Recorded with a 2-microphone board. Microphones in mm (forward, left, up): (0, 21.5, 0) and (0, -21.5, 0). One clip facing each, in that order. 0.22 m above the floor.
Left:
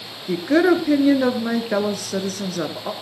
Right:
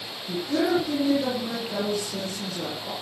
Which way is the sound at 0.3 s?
70° left (ahead or behind).